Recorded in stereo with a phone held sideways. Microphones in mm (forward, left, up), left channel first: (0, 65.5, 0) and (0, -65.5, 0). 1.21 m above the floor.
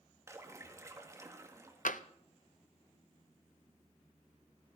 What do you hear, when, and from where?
0.3 s a splash: 20° right (ahead or behind), 1.5 m
1.9 s tapping: 80° left, 0.6 m